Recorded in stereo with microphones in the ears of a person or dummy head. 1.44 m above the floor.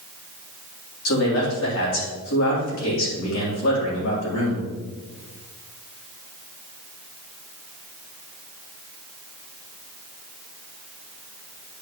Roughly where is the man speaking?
Left.